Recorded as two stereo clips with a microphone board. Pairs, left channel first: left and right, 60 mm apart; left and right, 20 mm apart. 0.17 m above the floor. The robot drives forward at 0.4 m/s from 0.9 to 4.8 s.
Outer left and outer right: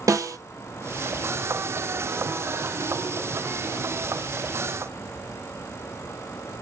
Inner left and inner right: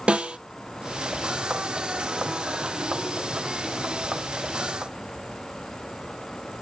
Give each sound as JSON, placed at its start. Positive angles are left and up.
{"t": 0.1, "sound": "a snare drum", "side_deg": -65, "distance_m": 0.7}